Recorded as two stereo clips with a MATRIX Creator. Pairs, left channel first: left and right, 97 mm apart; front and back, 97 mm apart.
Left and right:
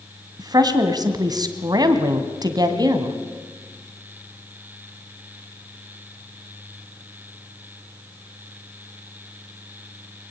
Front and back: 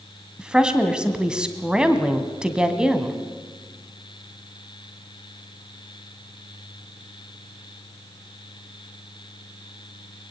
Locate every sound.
0.4 s a woman speaking: 105° right, 1.9 m